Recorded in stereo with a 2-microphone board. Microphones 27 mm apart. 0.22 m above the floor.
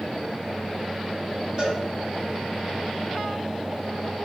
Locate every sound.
1.6 s a cowbell: 40° right (ahead or behind), 1.9 m